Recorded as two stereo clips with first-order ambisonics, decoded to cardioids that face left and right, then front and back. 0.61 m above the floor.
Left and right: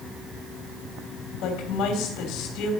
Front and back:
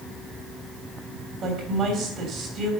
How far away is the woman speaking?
About 3.5 m.